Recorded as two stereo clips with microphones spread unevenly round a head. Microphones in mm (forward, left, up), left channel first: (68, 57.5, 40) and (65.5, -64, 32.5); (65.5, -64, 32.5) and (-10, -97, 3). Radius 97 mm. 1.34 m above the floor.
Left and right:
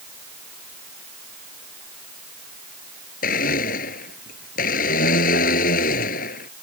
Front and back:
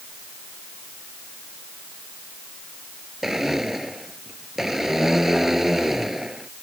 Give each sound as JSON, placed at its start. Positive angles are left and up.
{"t": 3.2, "sound": "a blender", "azimuth_deg": 115}